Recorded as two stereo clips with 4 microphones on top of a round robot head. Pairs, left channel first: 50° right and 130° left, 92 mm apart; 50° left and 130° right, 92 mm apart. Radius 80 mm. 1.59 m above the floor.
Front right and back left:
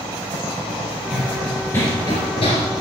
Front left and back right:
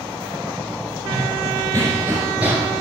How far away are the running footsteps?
About 1.7 m.